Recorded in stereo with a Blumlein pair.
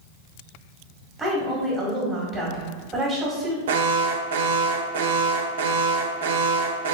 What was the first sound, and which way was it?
A woman speaking, 5° right.